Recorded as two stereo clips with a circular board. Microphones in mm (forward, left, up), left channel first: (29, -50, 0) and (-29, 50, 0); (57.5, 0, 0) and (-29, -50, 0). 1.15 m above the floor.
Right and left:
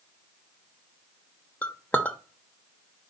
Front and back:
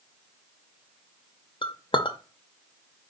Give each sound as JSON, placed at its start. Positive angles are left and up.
{"t": 1.6, "sound": "a clink", "azimuth_deg": 15, "distance_m": 0.7}